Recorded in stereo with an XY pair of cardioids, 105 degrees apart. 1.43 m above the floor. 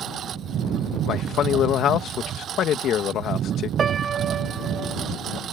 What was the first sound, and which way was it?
A lawn mower, 60° right.